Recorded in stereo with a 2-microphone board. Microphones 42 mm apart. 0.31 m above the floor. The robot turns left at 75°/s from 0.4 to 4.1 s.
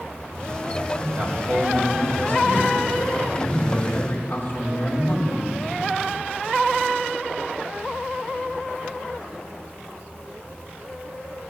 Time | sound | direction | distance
1.0 | a man speaking | 10° right | 4.5 m